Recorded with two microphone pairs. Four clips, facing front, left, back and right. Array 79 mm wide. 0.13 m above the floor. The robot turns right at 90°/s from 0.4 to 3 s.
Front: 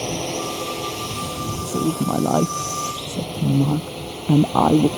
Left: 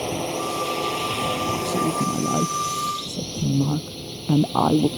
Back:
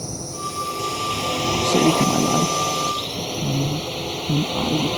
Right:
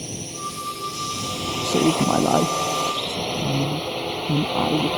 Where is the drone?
45° left; by 5.0 s 100° right.